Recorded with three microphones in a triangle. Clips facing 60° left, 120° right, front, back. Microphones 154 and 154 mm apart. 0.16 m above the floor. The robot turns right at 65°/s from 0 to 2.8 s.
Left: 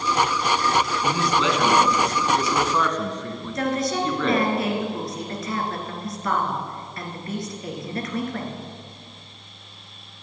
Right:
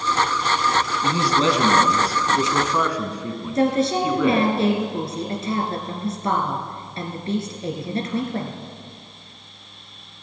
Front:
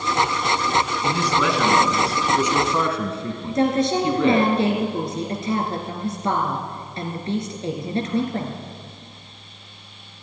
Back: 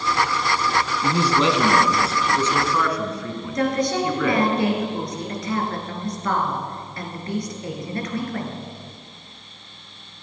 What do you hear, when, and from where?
1.0 s a man speaking: 160° right, 1.6 m; by 4.5 s 45° right, 1.6 m
3.5 s a woman speaking: 60° right, 1.9 m